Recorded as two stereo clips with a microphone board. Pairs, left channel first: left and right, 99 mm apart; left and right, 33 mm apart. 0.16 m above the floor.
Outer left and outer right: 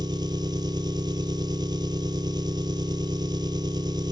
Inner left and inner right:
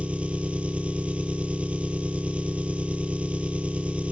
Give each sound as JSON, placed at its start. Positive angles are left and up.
{"t": 0.0, "sound": "an engine running", "side_deg": -50, "distance_m": 0.8}